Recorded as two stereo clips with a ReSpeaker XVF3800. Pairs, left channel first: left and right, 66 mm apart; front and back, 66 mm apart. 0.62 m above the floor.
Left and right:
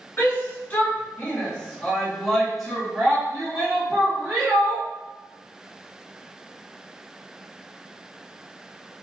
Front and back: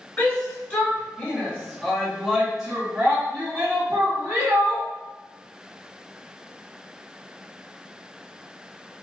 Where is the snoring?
I don't hear snoring.